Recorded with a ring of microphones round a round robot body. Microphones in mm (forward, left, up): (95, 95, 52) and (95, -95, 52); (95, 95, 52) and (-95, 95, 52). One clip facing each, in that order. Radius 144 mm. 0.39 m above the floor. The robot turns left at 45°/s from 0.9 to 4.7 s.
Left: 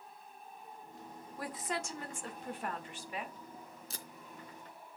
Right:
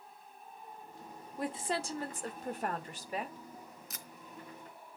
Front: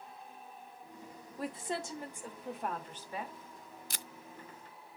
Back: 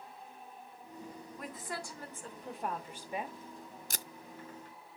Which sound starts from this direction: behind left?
Tape being pulled, at 3.9 s.